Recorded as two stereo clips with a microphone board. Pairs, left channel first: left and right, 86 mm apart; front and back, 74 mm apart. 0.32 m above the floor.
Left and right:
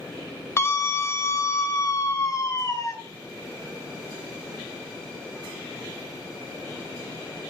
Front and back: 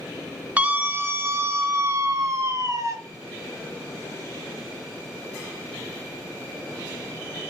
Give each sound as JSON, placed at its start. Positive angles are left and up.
{"t": 0.6, "sound": "a scream", "azimuth_deg": 125, "distance_m": 1.0}